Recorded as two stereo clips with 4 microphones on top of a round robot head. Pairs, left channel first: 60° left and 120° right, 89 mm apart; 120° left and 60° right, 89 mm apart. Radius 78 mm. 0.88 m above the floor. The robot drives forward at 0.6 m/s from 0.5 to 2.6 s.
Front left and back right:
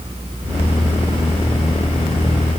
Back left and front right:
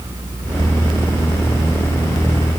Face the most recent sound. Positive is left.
No sound to turn to.